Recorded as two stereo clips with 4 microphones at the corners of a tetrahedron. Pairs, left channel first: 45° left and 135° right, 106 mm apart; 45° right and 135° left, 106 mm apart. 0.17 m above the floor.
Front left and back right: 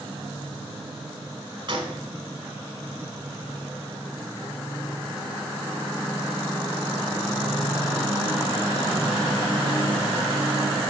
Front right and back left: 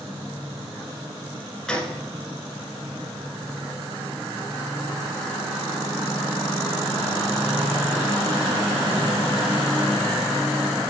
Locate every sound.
1.7 s a gunshot: 125° right, 1.0 m